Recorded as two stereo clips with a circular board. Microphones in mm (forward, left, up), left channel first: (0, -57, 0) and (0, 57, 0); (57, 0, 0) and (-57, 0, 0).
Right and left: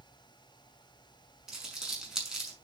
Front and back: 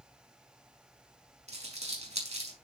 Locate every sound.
1.5 s crumpling: 175° left, 5.5 m